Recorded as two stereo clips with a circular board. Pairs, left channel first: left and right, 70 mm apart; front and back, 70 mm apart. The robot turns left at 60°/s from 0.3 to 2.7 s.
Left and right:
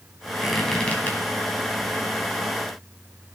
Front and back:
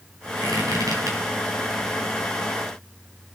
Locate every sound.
0.4 s a squeak: 170° right, 4 m; by 1.2 s 145° left, 4 m